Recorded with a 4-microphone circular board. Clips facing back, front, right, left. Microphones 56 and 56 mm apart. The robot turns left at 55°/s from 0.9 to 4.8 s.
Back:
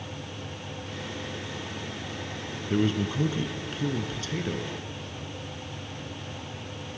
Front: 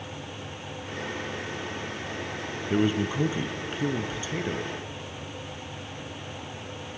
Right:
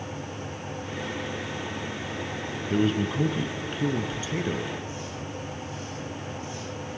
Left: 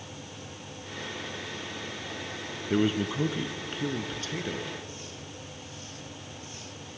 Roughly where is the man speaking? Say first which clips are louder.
Front 1 dB, right 1 dB; ahead left.